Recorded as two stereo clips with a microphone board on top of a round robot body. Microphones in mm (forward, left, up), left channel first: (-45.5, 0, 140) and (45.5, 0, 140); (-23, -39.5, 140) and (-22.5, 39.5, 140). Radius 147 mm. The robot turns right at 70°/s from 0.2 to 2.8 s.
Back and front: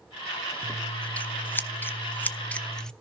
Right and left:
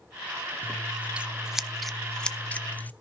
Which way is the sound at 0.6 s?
100° left.